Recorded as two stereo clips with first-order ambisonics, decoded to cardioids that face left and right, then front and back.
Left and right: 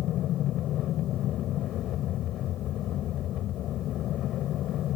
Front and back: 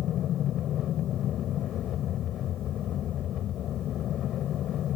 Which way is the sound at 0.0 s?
50° left.